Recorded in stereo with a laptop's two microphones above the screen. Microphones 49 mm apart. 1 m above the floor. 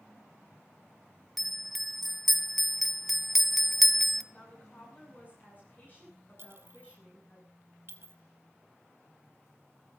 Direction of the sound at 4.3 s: 40° left (ahead or behind).